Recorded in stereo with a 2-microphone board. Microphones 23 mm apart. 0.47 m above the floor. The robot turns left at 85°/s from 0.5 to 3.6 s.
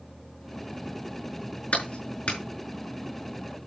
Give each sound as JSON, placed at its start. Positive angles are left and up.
{"t": 1.7, "sound": "a clap", "side_deg": 65, "distance_m": 5.0}